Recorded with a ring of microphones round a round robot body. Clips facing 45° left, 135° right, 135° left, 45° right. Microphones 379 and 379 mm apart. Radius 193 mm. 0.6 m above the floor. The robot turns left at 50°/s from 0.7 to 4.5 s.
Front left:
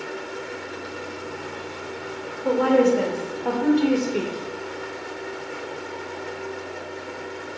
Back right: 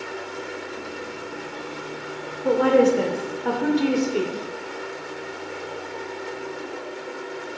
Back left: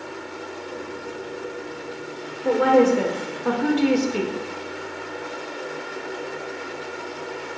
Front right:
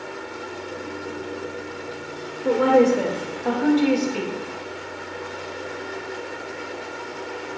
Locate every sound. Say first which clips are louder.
2.5 s a woman speaking: back right 1 dB, even; 125° right, 0.6 m; by 4.3 s 145° left, 0.6 m